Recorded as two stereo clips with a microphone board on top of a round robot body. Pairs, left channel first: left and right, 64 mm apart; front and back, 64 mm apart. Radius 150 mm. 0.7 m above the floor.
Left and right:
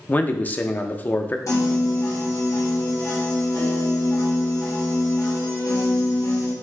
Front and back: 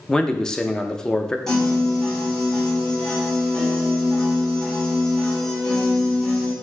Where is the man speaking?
70° left, 0.7 m.